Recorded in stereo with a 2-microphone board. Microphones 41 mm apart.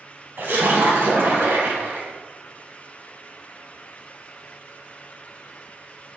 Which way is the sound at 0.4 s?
65° right (ahead or behind).